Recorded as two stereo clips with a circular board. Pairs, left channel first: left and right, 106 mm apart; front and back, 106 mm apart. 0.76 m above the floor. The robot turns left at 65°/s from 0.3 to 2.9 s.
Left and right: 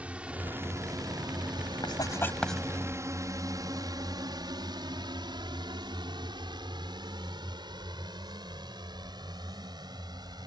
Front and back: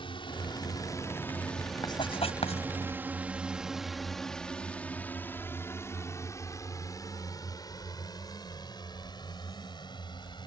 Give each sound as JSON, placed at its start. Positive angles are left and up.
{"t": 0.0, "sound": "a drone", "azimuth_deg": -15}
{"t": 1.8, "sound": "writing", "azimuth_deg": 50}